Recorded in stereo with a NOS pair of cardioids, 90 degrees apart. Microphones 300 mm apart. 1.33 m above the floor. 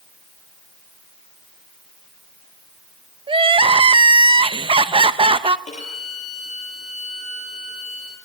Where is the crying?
15° right, 0.9 m.